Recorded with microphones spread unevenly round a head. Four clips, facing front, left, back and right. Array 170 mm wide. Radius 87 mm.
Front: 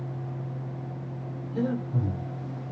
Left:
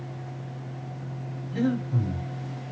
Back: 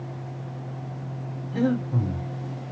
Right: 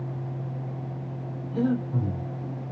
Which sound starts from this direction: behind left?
Breathing, at 1.5 s.